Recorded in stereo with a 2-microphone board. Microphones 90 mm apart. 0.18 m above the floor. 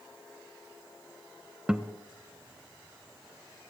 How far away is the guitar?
About 0.7 m.